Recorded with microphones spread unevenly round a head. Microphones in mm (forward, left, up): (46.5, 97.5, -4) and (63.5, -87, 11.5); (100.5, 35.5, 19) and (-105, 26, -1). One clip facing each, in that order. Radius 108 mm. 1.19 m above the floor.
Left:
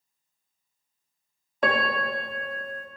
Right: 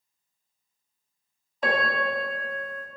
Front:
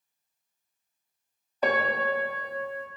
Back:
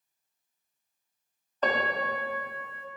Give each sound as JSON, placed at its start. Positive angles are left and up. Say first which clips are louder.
{"t": 1.6, "sound": "a piano", "louder": "left 1 dB, front 3 dB", "azimuth_deg": 75, "distance_m": 0.9}